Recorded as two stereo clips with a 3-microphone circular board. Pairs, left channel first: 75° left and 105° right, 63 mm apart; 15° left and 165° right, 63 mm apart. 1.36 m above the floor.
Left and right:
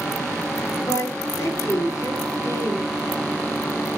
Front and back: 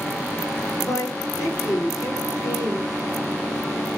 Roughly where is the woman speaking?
Ahead left.